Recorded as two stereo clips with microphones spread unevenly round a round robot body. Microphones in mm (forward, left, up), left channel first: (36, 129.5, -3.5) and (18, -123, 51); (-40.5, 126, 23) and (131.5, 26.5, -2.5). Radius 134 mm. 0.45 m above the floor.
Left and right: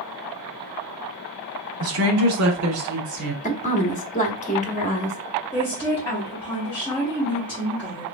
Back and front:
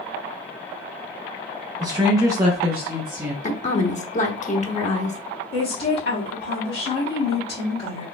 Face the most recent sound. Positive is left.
turn(degrees=155)